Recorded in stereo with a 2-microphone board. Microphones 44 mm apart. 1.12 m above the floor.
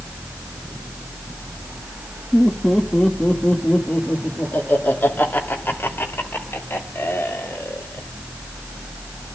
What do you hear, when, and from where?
2.3 s laughter: 10° left (ahead or behind), 2.5 m; by 8.1 s 65° left (ahead or behind), 5 m